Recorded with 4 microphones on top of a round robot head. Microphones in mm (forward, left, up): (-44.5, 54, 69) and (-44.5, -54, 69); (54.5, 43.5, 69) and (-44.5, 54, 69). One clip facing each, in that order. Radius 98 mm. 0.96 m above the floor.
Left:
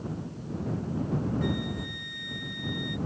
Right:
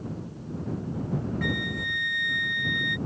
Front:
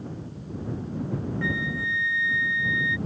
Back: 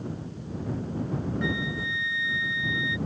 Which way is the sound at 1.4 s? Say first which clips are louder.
Even, front 1 dB; 110° right.